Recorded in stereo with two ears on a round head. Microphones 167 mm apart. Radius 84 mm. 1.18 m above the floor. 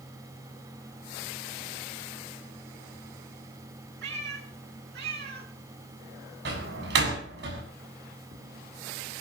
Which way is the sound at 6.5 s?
60° right (ahead or behind).